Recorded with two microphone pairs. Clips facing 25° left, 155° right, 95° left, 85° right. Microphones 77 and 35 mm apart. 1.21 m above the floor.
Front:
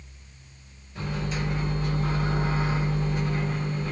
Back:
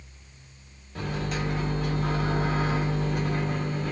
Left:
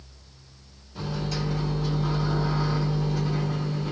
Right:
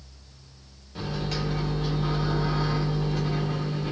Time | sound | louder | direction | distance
0.9 | a microwave | even, even | 125° right | 1.1 m